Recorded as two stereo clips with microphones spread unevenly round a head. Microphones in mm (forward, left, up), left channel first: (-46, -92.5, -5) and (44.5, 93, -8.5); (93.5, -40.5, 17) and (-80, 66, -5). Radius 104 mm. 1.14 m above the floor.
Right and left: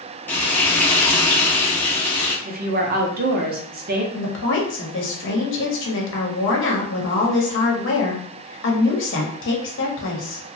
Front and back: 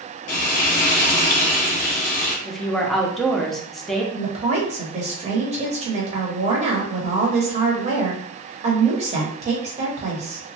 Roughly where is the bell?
I don't hear a bell.